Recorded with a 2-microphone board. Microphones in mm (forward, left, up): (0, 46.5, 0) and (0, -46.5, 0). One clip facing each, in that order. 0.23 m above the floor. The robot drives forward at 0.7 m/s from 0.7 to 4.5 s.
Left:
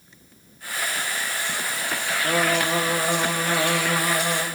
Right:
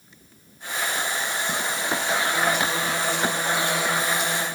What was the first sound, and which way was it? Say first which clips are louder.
Singing: left 5 dB; 70° left (ahead or behind).